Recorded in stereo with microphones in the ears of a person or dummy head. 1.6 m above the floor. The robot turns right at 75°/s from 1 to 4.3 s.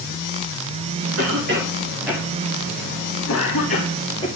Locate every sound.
1.2 s a cough: 75° right (ahead or behind), 2 m; by 4.3 s 25° left (ahead or behind), 2 m